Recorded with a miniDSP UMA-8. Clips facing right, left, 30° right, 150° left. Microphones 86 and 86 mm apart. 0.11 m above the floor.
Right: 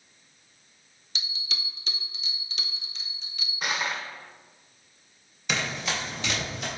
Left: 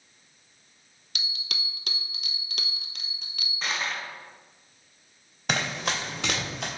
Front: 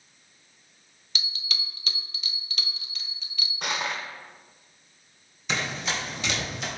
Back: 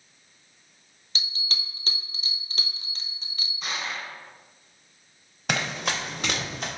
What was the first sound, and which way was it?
A bell, 100° left.